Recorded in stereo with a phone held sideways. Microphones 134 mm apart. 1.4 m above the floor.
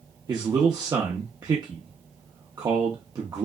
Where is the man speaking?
30° right (ahead or behind), 0.7 m.